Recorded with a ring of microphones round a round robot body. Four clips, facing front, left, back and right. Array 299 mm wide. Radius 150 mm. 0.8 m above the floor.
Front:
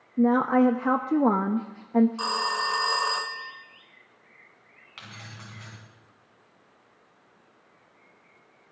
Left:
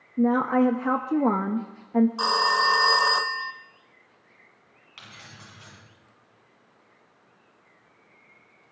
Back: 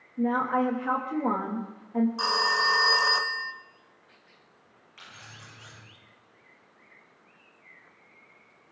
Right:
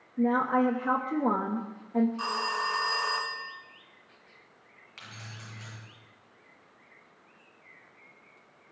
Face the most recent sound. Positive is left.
turn(degrees=10)